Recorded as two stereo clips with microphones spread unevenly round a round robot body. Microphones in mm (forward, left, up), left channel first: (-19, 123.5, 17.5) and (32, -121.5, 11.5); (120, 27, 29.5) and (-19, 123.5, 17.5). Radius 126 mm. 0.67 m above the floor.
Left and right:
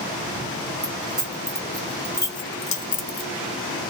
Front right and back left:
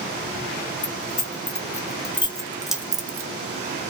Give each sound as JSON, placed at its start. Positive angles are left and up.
{"t": 0.8, "sound": "keys jangling", "azimuth_deg": 10, "distance_m": 1.6}